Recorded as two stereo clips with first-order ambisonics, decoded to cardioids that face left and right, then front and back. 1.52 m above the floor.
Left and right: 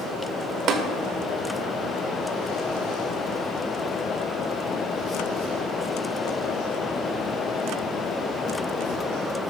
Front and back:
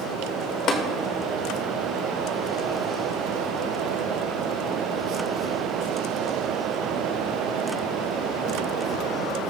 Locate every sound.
0.7 s tapping: 50° right, 1.3 m